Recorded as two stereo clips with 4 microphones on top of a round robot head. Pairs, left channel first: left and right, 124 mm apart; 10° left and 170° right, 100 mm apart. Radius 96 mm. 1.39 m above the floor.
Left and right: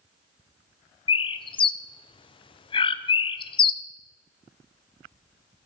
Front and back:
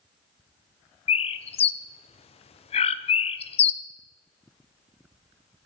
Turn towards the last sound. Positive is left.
turn(degrees=40)